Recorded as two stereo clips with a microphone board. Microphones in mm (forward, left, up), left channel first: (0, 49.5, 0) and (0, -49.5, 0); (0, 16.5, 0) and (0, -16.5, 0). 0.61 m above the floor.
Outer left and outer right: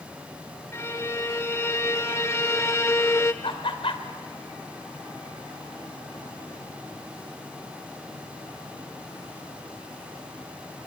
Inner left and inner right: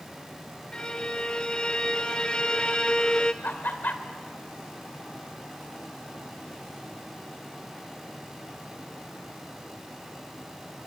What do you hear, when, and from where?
0.7 s a violin: 30° left (ahead or behind), 0.9 m
3.4 s laughter: 65° left (ahead or behind), 2.5 m